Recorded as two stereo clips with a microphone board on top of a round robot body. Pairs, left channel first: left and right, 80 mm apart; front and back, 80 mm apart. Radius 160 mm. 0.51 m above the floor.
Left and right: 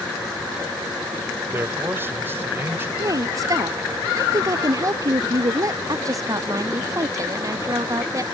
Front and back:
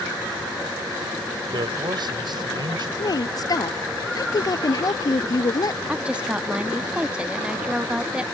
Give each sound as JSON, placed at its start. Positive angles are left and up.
{"t": 1.5, "sound": "a man speaking", "azimuth_deg": -155}
{"t": 3.0, "sound": "a woman speaking", "azimuth_deg": -40}
{"t": 5.9, "sound": "a woman speaking", "azimuth_deg": -110}